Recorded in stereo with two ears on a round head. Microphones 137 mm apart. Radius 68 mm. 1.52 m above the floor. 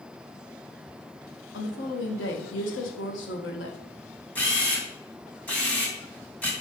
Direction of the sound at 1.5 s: 85° left.